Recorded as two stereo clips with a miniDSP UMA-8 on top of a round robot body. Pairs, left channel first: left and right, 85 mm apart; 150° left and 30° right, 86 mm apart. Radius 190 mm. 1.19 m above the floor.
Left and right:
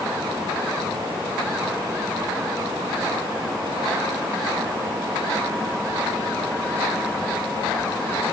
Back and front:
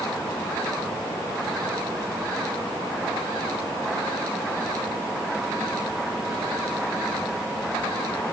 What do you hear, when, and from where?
Only background noise.